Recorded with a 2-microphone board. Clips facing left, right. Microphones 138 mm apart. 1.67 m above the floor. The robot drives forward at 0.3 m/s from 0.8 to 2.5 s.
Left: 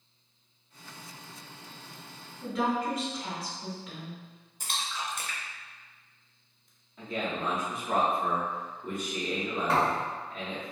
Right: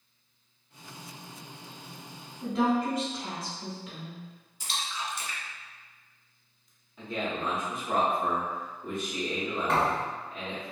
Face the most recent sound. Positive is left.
turn(degrees=5)  # may be behind; listen again after turning